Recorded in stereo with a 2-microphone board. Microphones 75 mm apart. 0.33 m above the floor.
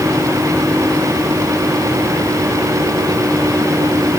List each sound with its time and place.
Only background noise.